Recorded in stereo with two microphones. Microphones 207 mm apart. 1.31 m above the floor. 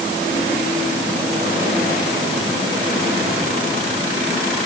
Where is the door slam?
I don't hear a door slam.